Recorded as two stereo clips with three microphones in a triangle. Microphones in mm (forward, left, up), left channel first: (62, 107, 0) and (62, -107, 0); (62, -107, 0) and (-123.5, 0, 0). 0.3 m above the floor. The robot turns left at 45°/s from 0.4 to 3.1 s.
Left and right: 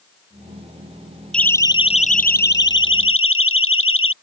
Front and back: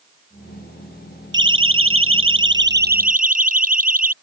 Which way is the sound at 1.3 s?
175° left.